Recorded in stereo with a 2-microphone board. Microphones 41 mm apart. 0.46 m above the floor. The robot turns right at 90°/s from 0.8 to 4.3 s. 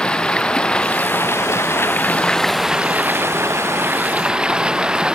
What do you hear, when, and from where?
0.0 s running water: 25° left; by 5.2 s 20° right